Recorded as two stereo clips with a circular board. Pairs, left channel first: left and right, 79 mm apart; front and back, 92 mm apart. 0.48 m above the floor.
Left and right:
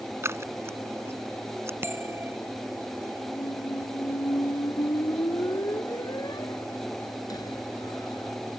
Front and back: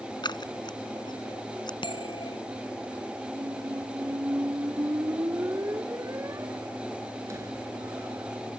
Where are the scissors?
35° right.